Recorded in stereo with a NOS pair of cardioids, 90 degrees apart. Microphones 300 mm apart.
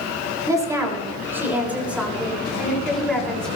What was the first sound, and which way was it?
A woman speaking, 10° right.